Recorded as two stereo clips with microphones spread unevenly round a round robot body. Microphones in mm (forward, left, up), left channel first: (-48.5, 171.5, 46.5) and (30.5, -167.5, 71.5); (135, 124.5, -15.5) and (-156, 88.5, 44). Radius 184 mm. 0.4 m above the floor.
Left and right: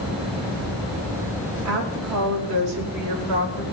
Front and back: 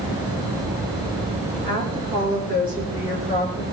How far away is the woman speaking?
About 5.5 m.